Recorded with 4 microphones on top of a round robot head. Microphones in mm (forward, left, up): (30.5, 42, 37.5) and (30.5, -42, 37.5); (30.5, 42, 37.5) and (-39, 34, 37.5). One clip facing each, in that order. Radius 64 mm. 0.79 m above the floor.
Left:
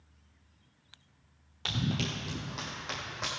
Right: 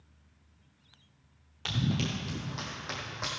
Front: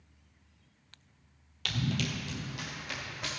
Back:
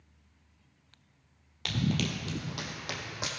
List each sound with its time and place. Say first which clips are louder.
1.6 s running footsteps: right 2 dB, back 3 dB; 175° left, 0.8 m; by 3.3 s 175° right, 1.7 m